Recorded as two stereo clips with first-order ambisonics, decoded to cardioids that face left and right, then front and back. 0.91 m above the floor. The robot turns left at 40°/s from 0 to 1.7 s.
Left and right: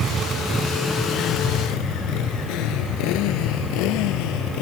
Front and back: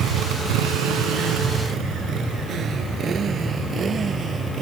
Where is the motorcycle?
140° right; by 4.6 s 110° left.